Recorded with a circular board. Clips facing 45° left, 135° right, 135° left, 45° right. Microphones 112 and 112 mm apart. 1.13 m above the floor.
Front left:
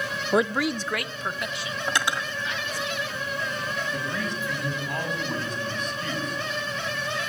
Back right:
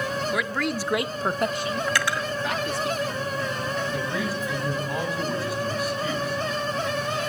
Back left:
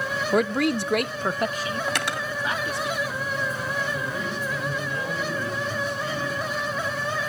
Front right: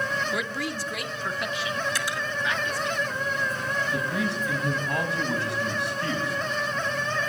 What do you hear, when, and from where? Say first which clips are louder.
0.3 s a man speaking: front left 3 dB, back left 9 dB; 95° left, 0.7 m; by 2.9 s 160° right, 2.5 m
1.9 s cutlery clinking: front left 3 dB, back left 2 dB; 115° left, 1.1 m
3.9 s a man speaking: back right 3 dB, front right 2 dB; 50° right, 8 m